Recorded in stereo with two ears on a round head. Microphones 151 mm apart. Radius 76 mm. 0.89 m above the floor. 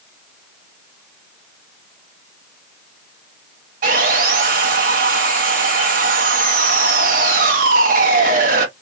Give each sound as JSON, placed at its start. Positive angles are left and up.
{"t": 3.8, "sound": "sawing", "side_deg": -50, "distance_m": 1.1}